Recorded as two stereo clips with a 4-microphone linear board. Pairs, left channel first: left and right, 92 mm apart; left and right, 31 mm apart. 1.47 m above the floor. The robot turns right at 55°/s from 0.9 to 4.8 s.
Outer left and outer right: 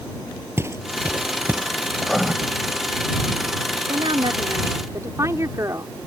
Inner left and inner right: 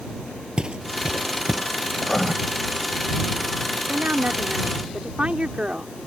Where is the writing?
10° left (ahead or behind); by 2.3 s 10° right (ahead or behind).